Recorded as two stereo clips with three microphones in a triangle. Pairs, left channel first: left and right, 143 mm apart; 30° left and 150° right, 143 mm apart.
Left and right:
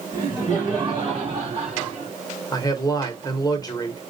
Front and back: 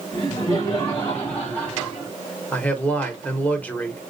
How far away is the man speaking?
About 1.0 m.